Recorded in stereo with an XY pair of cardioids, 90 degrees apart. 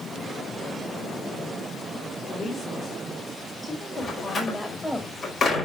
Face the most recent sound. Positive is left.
turn(degrees=50)